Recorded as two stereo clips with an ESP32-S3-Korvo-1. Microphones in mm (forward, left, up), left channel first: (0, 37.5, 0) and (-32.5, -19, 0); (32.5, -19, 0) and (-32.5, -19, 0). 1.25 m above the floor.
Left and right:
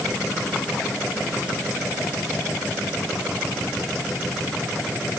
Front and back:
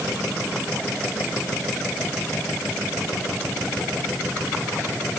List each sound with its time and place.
Only background noise.